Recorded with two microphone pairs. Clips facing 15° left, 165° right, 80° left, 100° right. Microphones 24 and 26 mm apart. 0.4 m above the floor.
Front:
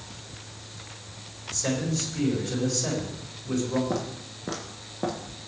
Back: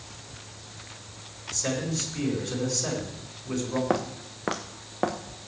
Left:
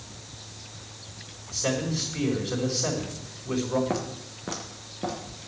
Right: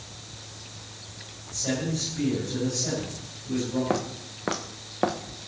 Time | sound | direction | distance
1.5 | a man speaking | 110° left | 4.5 m
3.9 | footsteps | 170° right | 1.7 m